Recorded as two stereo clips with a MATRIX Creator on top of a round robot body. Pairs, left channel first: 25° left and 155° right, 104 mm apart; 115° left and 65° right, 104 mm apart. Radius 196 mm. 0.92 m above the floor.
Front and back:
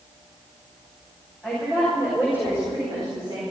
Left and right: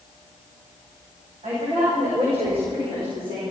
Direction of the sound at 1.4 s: 75° right.